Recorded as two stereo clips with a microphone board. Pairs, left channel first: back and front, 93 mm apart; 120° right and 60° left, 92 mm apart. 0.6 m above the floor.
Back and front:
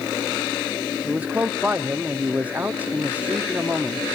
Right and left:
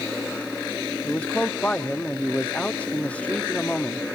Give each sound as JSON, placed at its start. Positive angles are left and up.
{"t": 1.1, "sound": "a man speaking", "azimuth_deg": -60, "distance_m": 0.9}